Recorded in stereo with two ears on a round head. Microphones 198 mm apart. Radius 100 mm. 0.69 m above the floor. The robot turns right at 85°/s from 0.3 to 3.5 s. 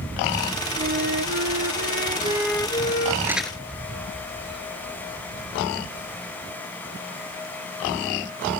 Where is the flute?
145° right; by 3.2 s 55° left.